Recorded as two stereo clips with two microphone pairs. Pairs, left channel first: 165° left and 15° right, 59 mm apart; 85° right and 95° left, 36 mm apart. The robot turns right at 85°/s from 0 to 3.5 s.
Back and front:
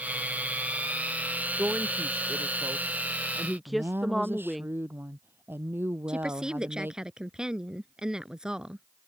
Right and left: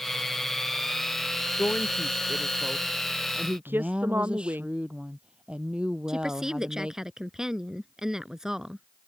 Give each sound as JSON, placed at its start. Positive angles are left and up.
{"t": 1.6, "sound": "a woman speaking", "azimuth_deg": -90}
{"t": 3.7, "sound": "a woman speaking", "azimuth_deg": 35}
{"t": 6.1, "sound": "a woman speaking", "azimuth_deg": 45}